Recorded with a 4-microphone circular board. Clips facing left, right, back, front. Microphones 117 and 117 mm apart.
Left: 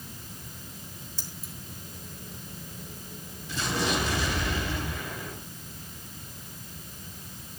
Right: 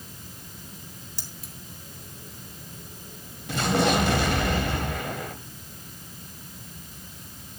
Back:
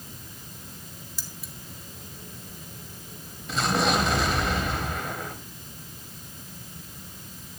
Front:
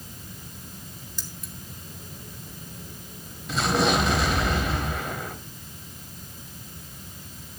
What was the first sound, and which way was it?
Keys jangling, 95° right.